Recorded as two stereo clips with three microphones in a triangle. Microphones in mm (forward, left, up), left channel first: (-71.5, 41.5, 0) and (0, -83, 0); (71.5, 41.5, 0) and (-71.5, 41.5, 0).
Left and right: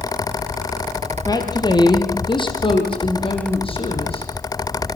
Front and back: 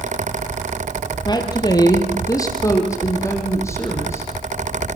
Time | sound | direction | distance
1.2 | a woman speaking | 60° left | 3 m